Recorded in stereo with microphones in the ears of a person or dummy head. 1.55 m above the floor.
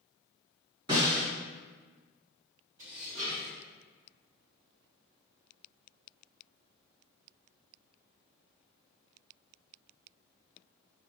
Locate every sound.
0.9 s a snare drum: 25° right (ahead or behind), 1.9 m
2.8 s dishes clattering: 15° right (ahead or behind), 0.7 m